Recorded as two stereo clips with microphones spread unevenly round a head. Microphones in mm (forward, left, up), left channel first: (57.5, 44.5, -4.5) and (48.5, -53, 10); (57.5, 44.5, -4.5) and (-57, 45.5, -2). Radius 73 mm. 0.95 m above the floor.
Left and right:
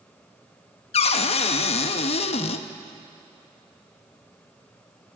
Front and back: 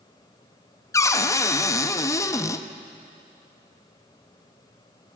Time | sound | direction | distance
0.9 | a cupboard door | 65° left | 0.5 m